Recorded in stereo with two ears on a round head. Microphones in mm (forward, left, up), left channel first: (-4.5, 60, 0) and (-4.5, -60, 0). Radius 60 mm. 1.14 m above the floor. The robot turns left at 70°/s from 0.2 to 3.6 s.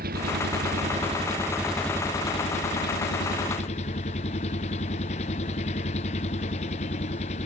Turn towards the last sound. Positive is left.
turn(degrees=50)